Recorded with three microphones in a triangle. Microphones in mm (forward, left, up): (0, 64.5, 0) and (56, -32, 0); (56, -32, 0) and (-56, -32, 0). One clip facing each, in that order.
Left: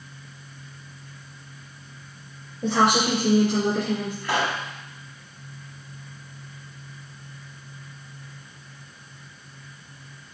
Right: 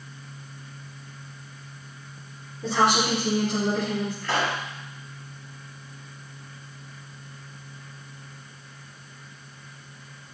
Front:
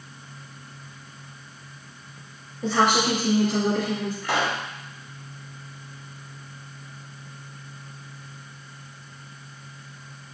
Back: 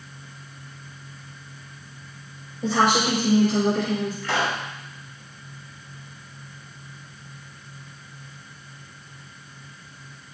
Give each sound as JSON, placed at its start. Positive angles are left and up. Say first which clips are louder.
{"t": 2.6, "sound": "a woman speaking", "louder": "left 2 dB, back 1 dB", "azimuth_deg": 100, "distance_m": 3.5}
{"t": 4.2, "sound": "a pop", "louder": "left 2 dB, front 3 dB", "azimuth_deg": 65, "distance_m": 1.8}